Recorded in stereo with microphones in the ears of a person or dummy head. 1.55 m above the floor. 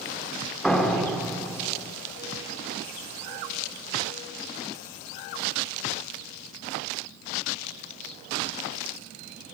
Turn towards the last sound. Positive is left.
turn(degrees=5)  # may be behind; listen again after turning